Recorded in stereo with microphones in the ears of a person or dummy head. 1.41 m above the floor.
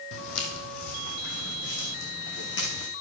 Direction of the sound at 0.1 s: 60° left (ahead or behind).